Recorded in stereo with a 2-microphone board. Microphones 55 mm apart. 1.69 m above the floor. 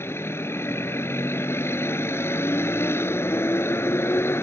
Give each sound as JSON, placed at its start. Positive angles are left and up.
{"t": 0.0, "sound": "a vehicle", "side_deg": 50}